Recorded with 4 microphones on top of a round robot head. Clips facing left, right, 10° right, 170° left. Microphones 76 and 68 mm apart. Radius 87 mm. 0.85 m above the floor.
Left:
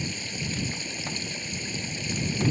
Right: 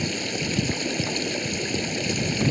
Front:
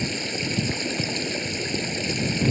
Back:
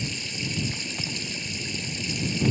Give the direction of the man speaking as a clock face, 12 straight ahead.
No man speaking in this recording.